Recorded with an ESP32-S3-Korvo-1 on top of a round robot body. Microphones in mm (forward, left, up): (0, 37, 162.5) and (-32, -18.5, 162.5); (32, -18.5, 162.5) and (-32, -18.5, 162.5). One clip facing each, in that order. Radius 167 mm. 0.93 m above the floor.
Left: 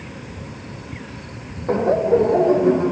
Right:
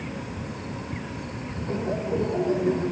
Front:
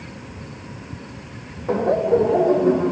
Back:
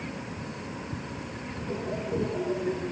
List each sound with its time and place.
1.7 s laughter: 25° left; by 2.9 s 15° left